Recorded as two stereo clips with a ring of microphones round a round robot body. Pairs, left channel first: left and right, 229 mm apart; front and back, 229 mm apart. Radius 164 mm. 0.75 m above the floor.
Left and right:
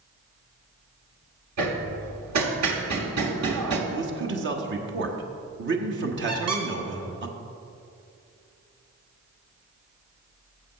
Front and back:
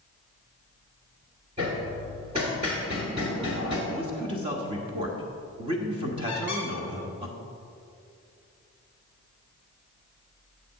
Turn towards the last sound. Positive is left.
turn(degrees=-95)